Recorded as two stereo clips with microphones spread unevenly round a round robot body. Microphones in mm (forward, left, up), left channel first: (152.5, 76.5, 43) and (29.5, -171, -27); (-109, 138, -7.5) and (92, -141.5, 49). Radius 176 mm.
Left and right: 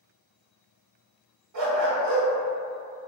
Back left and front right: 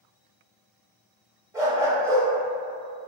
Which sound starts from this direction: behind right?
A dog barking, at 1.5 s.